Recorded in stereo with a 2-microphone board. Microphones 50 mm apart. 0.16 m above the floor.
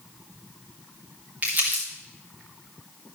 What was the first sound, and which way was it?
Crumpling, 35° right (ahead or behind).